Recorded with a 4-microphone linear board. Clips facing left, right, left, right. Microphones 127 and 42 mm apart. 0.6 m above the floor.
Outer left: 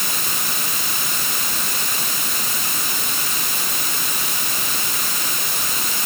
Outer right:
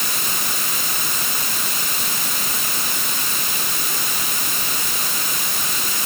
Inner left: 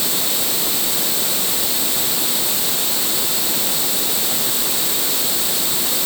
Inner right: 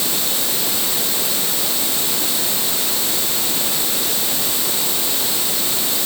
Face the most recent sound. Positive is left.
No sound to turn to.